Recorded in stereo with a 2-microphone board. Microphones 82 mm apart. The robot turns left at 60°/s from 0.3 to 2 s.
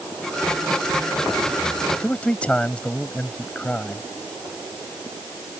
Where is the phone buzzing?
No phone buzzing in this recording.